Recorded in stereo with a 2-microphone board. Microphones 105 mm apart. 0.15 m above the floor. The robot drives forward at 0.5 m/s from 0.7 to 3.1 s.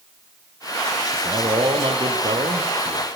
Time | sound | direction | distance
1.1 | a man speaking | 55° right (ahead or behind) | 4.5 m